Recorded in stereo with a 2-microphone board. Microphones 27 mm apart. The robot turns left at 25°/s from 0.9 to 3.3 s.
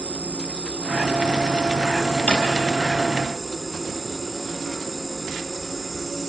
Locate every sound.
0.0 s an insect: 125° right, 1.1 m; by 6.3 s 175° left, 1.1 m
2.3 s a drawer: 50° left (ahead or behind), 4 m; by 2.5 s 45° left (ahead or behind), 4 m